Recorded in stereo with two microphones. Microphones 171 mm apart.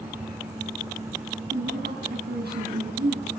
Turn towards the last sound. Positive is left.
turn(degrees=-70)  # may be behind; listen again after turning